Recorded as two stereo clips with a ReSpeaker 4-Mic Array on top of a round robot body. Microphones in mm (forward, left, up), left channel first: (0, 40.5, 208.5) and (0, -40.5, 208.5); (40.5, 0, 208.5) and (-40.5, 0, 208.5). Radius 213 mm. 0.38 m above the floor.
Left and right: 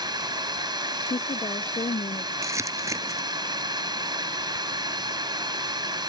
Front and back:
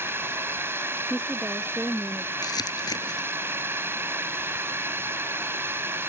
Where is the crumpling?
35° right.